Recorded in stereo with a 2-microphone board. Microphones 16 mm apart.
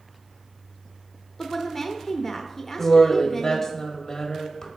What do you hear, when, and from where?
1.4 s a woman speaking: 20° left (ahead or behind), 0.9 m
2.8 s a woman speaking: 35° left (ahead or behind), 1.7 m